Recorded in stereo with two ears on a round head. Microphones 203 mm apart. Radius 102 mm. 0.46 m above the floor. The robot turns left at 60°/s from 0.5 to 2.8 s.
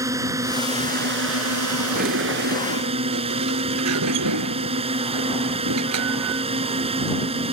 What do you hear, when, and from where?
0.0 s a drone: 15° right; by 7.5 s 150° right
1.9 s a sliding door: 35° right; by 6.5 s 90° right